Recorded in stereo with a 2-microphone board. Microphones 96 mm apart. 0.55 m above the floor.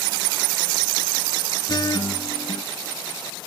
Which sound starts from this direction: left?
A guitar, at 1.7 s.